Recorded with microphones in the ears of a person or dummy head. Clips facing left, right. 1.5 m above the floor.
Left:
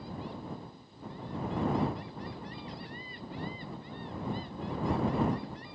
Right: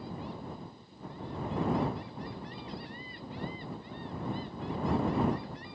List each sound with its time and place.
Only background noise.